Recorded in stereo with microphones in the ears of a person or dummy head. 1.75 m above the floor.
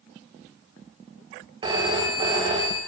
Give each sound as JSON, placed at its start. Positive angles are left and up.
{"t": 1.6, "sound": "a phone ringing", "side_deg": -30, "distance_m": 1.4}